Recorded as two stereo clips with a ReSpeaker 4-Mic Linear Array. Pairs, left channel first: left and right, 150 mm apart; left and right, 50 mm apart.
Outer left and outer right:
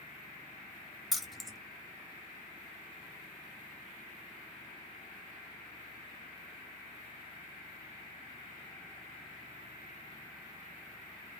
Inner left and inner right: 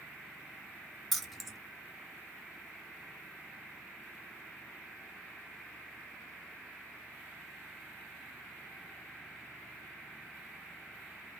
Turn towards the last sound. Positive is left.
turn(degrees=0)  # may be behind; listen again after turning